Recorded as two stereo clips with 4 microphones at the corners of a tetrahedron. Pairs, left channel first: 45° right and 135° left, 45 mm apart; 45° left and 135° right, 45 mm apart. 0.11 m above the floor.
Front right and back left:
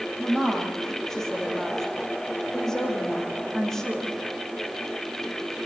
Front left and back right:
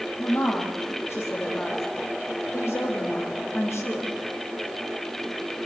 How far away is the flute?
No flute in this recording.